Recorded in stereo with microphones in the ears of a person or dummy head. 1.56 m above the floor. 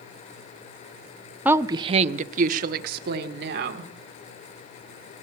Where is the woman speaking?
5° right (ahead or behind), 0.6 m; by 3.9 s 55° right (ahead or behind), 2 m.